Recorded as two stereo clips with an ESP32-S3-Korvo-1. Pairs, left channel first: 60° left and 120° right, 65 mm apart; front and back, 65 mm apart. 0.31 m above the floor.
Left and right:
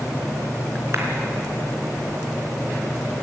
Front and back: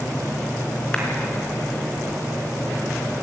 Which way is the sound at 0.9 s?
75° right.